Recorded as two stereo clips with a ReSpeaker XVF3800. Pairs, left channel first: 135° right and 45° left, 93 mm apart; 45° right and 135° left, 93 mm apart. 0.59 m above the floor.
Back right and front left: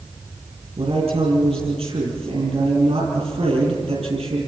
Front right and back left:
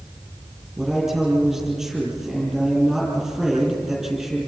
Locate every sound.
0.8 s a man speaking: 50° left, 8.5 m